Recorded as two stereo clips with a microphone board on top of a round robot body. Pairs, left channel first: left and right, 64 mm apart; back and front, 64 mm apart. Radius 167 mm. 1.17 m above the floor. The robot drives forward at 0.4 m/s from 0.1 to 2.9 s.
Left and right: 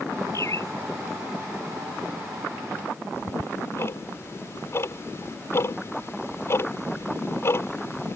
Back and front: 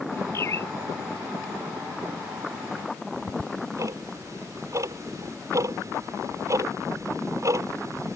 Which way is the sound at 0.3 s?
130° left.